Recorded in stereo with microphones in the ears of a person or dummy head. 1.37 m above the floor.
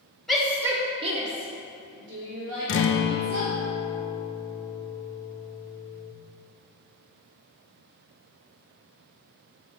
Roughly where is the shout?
Centre.